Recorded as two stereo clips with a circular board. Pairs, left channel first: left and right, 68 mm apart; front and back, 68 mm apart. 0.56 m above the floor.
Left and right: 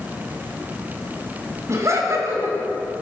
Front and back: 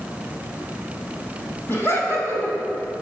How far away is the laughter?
About 4 m.